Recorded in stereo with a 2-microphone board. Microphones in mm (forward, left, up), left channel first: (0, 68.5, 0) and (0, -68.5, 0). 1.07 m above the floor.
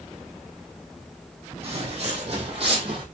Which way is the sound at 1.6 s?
45° right (ahead or behind).